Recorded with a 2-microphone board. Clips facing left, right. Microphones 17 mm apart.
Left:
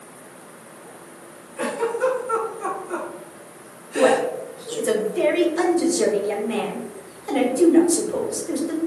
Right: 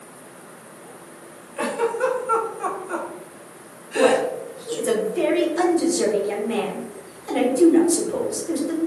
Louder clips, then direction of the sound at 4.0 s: Even; 15° left (ahead or behind).